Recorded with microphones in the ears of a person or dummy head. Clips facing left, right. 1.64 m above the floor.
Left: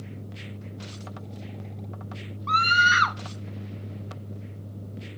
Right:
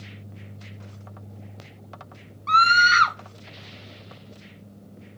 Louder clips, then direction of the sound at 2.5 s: Right 4 dB; 15° right (ahead or behind).